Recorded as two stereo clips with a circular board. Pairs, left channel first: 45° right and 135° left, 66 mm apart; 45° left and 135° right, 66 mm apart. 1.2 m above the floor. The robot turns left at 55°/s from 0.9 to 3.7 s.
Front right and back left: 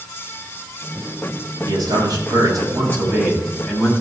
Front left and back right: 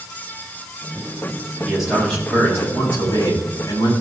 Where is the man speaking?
150° left, 7 m; by 3.9 s 35° left, 7 m.